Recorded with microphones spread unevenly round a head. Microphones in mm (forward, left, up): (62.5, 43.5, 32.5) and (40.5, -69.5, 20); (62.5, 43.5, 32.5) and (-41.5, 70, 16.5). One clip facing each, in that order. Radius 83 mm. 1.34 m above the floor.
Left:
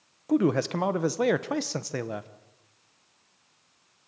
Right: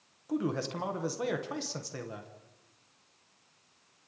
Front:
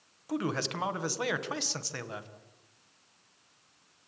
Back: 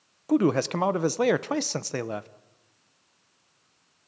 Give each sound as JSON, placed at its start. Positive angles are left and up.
{"t": 0.3, "sound": "a man speaking", "azimuth_deg": 130, "distance_m": 0.9}